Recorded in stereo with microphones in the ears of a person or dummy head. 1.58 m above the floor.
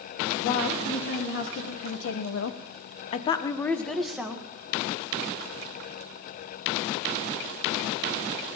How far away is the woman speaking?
About 2.5 m.